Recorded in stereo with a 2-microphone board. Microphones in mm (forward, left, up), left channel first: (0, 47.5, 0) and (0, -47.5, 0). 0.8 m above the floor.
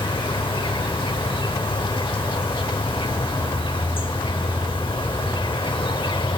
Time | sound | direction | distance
0.0 | an insect | 65° left (ahead or behind) | 1.1 m